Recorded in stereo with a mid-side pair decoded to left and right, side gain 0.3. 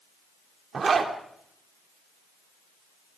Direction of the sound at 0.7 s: 60° right.